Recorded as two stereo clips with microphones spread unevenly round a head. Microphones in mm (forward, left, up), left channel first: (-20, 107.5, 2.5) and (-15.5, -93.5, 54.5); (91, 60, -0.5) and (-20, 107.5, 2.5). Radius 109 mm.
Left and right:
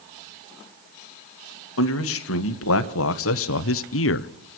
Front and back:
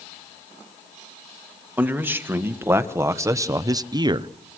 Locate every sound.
1.8 s a man speaking: 80° left, 2 m; by 4.3 s 105° left, 0.9 m